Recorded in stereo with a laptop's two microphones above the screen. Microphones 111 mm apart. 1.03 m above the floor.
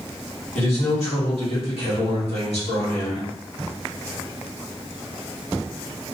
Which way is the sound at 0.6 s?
70° left (ahead or behind).